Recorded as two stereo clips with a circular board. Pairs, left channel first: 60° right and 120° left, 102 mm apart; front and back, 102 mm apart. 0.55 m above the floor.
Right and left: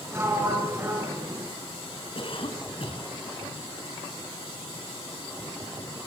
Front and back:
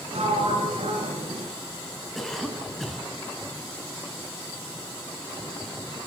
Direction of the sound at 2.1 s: 85° right.